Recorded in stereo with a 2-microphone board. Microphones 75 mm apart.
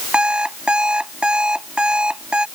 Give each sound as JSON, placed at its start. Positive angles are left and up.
{"t": 0.1, "sound": "an alarm clock", "side_deg": -10}